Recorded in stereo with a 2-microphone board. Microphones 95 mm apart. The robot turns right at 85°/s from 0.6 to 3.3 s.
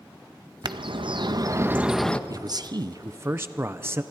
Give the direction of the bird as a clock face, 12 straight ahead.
4 o'clock.